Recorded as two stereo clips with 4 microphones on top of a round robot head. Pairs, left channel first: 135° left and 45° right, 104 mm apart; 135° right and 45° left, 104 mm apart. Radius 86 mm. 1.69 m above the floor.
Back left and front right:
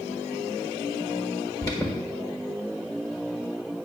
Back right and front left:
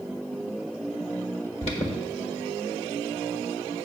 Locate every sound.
1.6 s an alarm: 165° right, 1.3 m